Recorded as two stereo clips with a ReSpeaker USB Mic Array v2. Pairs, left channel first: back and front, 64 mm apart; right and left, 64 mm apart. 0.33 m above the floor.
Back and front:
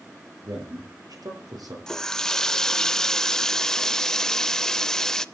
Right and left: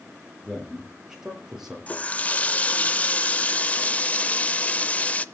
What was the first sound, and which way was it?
A man speaking, 10° left.